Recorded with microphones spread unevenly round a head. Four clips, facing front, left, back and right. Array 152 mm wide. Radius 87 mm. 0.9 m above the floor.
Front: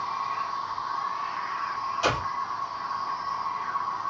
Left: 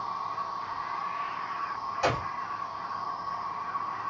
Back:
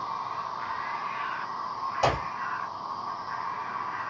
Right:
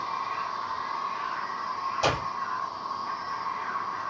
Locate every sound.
0.0 s an insect: 140° left, 2 m
2.0 s a clap: straight behind, 3 m